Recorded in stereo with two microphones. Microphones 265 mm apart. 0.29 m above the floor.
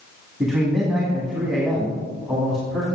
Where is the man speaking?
Centre (ahead or behind), 2.0 m.